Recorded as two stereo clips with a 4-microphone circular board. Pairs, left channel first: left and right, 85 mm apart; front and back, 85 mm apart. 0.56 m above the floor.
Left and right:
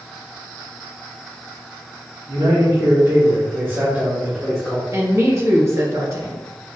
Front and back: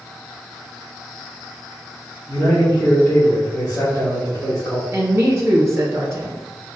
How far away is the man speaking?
About 1.8 m.